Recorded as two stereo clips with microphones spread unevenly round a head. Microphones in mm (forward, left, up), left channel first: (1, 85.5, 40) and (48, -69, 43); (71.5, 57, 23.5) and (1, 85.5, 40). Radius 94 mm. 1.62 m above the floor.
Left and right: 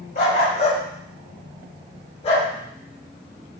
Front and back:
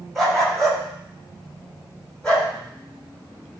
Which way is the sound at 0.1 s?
65° left.